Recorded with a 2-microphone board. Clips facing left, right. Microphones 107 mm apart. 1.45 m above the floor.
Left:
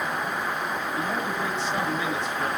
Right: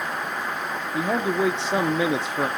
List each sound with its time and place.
0.9 s a man speaking: 80° right, 0.8 m